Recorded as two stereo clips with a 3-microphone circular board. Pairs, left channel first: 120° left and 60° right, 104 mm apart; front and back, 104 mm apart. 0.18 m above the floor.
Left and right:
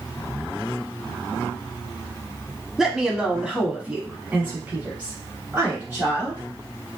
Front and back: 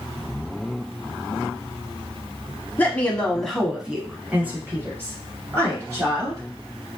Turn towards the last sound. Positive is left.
turn(degrees=-130)